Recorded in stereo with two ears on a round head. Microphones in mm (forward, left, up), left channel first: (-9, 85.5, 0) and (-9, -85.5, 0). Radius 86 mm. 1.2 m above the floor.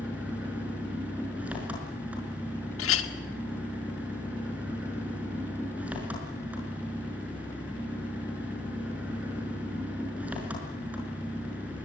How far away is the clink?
About 1.7 m.